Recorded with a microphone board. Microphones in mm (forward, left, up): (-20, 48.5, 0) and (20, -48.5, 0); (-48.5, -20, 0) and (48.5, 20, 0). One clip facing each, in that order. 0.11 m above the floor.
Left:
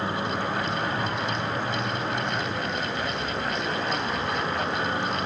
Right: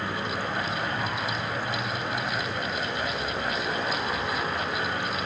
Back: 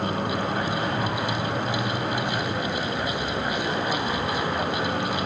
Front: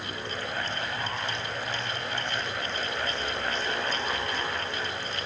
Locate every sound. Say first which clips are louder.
0.0 s a vehicle: left 3 dB, back 10 dB; straight behind